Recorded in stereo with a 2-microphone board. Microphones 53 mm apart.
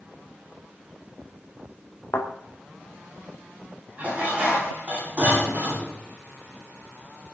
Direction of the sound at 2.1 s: 70° left (ahead or behind).